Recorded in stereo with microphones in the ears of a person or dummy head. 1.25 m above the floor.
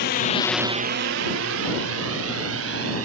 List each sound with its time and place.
0.0 s a drone: 50° left (ahead or behind); by 3.0 s 85° right